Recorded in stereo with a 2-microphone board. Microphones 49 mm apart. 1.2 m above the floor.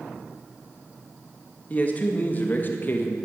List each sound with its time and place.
1.7 s a man speaking: 30° left (ahead or behind), 2 m; by 3.2 s 45° left (ahead or behind), 1.6 m